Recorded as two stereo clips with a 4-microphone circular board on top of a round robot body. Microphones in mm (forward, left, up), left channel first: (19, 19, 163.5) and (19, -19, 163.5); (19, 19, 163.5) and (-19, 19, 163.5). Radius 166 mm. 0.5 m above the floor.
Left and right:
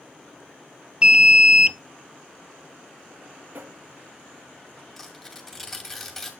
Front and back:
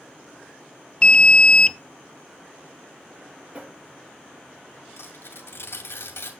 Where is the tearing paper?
15° left, 2 m.